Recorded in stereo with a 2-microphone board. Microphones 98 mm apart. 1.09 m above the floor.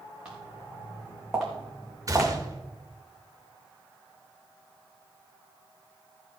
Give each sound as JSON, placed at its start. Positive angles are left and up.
{"t": 0.2, "sound": "footsteps", "side_deg": -10, "distance_m": 4.5}
{"t": 2.1, "sound": "a gunshot", "side_deg": -35, "distance_m": 1.3}